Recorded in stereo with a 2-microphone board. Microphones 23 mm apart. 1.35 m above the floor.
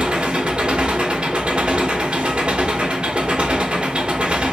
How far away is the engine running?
About 1.3 m.